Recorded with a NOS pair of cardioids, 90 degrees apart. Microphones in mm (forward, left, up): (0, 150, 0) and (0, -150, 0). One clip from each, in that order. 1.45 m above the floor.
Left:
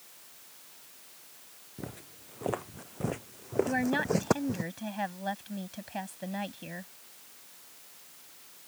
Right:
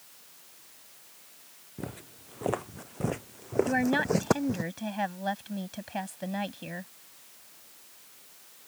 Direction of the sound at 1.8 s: 25° right.